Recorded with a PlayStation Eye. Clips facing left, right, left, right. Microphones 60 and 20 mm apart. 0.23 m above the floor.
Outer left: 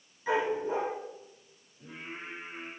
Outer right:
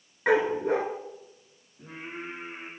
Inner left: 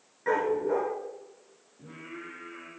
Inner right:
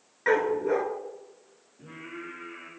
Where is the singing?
80° right, 7 m.